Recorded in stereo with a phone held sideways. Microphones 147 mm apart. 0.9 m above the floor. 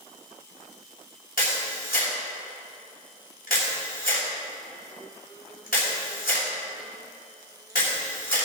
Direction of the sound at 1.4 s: 85° left.